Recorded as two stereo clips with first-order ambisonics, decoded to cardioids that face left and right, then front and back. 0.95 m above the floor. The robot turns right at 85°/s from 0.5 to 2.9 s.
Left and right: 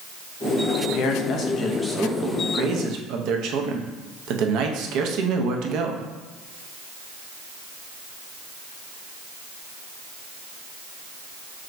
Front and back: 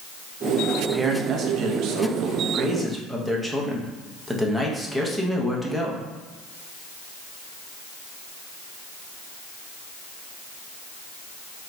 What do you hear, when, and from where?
0.8 s a man speaking: 85° left, 0.6 m; by 6.1 s 95° right, 0.6 m